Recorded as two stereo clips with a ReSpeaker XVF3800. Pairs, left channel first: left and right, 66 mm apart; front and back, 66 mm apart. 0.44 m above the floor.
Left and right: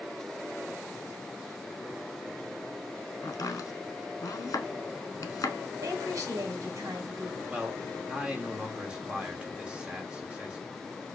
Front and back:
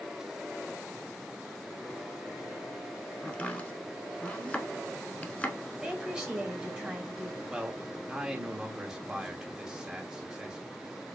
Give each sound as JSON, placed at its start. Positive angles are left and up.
{"t": 3.2, "sound": "chopping", "azimuth_deg": 65, "distance_m": 0.7}
{"t": 5.8, "sound": "a woman speaking", "azimuth_deg": -105, "distance_m": 1.6}
{"t": 7.5, "sound": "a man speaking", "azimuth_deg": -115, "distance_m": 0.8}